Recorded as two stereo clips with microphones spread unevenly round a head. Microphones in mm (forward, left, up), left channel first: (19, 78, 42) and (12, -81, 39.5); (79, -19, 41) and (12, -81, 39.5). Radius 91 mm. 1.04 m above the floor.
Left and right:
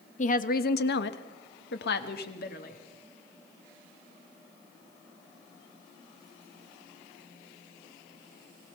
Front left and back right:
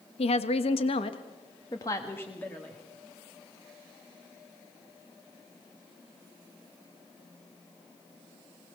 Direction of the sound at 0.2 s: 45° left.